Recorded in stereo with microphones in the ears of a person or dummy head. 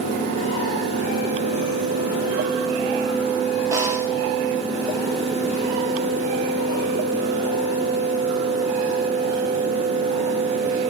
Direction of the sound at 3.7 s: 15° right (ahead or behind).